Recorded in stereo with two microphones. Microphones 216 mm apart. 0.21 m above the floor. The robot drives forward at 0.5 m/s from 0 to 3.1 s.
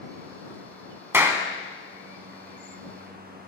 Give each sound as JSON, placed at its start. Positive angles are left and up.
{"t": 1.1, "sound": "a clap", "side_deg": -10, "distance_m": 1.1}